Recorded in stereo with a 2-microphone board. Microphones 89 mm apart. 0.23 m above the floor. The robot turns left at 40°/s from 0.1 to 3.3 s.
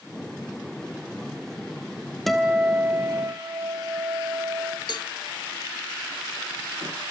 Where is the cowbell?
55° left (ahead or behind), 0.9 m.